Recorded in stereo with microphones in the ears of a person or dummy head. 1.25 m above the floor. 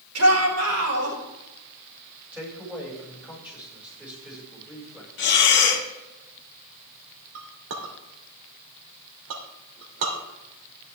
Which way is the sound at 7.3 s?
65° right (ahead or behind).